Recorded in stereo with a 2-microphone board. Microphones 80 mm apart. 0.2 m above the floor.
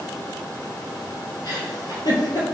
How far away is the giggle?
About 2.5 m.